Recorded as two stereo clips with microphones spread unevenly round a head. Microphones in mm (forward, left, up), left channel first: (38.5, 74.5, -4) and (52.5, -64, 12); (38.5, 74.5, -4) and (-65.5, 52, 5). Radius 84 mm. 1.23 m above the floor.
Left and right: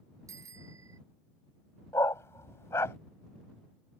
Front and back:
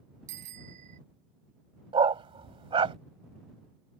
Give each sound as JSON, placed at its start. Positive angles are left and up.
{"t": 0.3, "sound": "a bicycle bell", "azimuth_deg": -155}
{"t": 1.9, "sound": "a dog barking", "azimuth_deg": 175}